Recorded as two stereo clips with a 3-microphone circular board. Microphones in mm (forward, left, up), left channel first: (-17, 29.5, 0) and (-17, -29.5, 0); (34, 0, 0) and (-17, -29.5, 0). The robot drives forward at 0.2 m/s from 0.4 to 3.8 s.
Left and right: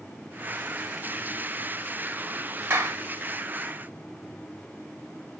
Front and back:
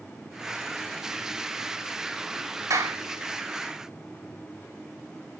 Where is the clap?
145° right, 3 m.